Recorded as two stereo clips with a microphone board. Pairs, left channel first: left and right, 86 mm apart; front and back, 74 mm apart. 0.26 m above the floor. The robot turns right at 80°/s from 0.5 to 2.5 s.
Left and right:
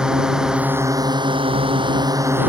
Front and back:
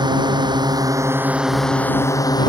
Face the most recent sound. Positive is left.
turn(degrees=-20)